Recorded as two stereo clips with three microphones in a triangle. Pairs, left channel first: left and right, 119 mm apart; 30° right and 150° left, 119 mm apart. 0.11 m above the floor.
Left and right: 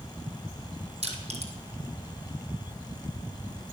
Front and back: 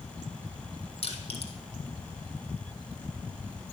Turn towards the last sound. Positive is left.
turn(degrees=-65)